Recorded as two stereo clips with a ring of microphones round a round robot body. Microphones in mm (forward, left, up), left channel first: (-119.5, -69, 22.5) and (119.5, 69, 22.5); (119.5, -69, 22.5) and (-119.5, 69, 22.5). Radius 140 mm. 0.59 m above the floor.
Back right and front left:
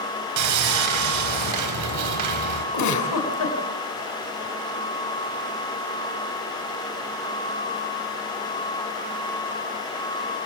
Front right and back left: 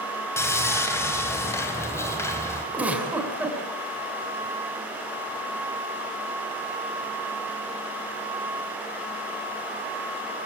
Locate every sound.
0.4 s sawing: 50° left, 3.5 m
2.7 s a giggle: 125° right, 4 m